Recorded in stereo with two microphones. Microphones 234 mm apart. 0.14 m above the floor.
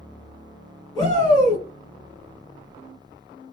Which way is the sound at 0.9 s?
15° left (ahead or behind).